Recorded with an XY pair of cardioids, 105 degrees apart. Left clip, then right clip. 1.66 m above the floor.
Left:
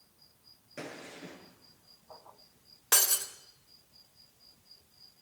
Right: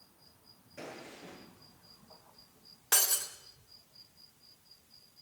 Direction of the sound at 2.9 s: 30° left.